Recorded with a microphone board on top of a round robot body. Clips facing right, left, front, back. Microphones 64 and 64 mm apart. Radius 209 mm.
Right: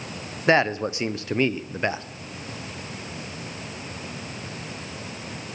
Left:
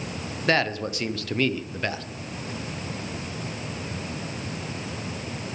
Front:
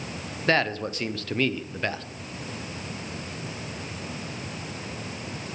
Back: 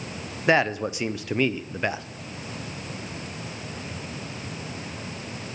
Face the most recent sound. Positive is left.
turn(degrees=-120)